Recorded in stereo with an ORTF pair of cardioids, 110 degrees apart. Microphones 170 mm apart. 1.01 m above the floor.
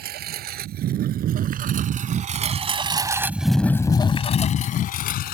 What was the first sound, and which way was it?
A lawn mower, 70° right.